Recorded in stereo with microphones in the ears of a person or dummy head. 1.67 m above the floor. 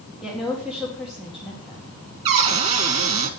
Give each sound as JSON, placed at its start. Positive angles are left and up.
{"t": 0.2, "sound": "a woman speaking", "side_deg": 0, "distance_m": 2.0}
{"t": 2.2, "sound": "a cupboard door", "side_deg": -45, "distance_m": 1.2}